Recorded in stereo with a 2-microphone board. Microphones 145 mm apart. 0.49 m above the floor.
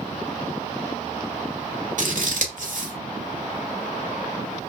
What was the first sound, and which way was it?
Scissors, 65° right (ahead or behind).